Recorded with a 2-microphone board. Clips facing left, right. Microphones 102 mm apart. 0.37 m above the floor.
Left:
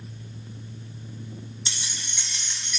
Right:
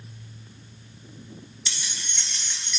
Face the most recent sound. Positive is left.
turn(degrees=0)  # may be behind; listen again after turning